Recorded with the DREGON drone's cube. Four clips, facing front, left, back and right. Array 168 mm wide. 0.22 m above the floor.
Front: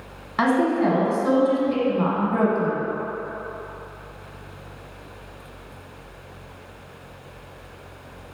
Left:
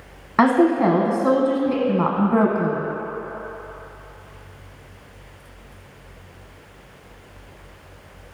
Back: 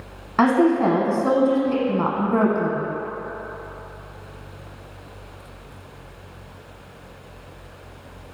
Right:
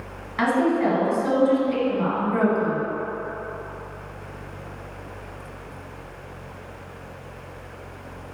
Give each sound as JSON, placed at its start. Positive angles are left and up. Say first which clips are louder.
{"t": 0.4, "sound": "a woman speaking", "louder": "left 5 dB, back 3 dB", "azimuth_deg": 110, "distance_m": 1.4}